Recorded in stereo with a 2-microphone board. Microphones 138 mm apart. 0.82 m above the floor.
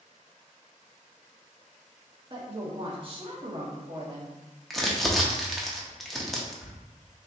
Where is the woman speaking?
40° right (ahead or behind), 1.0 m.